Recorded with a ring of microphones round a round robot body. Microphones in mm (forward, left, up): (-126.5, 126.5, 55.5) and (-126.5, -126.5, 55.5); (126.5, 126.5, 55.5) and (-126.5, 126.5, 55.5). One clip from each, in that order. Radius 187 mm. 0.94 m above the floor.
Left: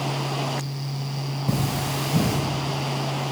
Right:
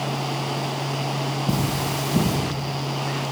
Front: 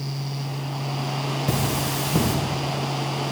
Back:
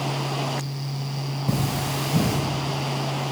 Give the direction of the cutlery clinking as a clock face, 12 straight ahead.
11 o'clock.